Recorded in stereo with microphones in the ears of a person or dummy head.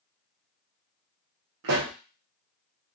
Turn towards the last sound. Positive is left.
turn(degrees=-60)  # may be behind; listen again after turning